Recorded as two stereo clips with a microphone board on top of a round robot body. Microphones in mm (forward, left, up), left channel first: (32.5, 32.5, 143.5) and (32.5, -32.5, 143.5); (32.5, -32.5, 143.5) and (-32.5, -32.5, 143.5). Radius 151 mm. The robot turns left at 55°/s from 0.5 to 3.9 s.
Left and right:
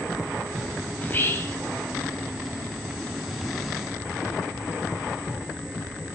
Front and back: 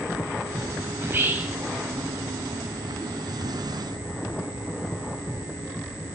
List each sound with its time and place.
1.0 s whispering: 145° left, 1.2 m; by 1.6 s 115° left, 1.2 m